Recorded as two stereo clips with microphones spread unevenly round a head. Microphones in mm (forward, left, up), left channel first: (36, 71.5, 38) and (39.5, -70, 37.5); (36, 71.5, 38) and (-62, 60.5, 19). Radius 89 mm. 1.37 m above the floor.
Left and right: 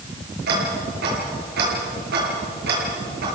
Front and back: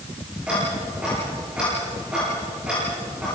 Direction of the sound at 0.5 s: 85° right.